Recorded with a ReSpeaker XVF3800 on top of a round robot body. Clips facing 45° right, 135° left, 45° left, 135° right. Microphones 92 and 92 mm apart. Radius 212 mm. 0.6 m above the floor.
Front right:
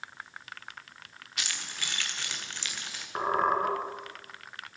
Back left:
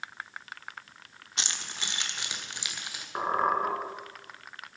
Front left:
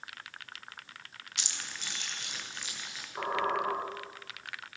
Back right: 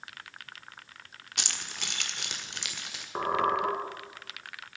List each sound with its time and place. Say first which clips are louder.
1.4 s keys jangling: back left 1 dB, back right 4 dB; 165° right, 1.3 m; by 3.0 s 150° right, 2.5 m
3.1 s a squeak: even, back right 4 dB; 135° right, 2.5 m